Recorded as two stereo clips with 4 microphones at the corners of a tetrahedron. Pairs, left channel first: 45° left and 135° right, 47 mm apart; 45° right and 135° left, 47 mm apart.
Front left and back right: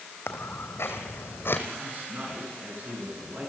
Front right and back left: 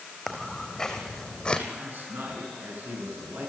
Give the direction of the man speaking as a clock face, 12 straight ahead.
6 o'clock.